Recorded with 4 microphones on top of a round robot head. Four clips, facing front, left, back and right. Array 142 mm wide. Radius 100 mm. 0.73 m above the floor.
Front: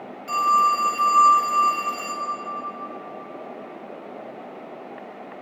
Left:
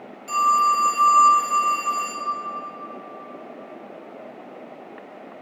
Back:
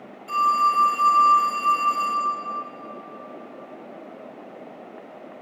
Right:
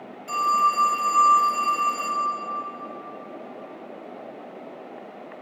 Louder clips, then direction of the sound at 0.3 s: Left 3 dB, front 1 dB; 15° left.